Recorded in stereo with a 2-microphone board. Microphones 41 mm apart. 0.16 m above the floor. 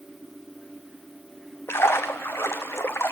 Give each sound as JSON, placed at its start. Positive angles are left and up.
{"t": 1.7, "sound": "a splash", "side_deg": 75, "distance_m": 1.4}